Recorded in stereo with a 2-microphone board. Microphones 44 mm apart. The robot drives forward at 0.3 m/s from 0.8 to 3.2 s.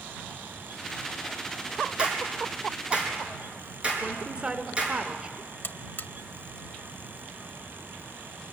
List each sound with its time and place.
2.0 s a clap: 25° right (ahead or behind), 5 m; by 5.0 s 20° right (ahead or behind), 5 m
4.0 s a woman speaking: 30° right (ahead or behind), 1.2 m
5.6 s a buzzer: 45° left (ahead or behind), 0.7 m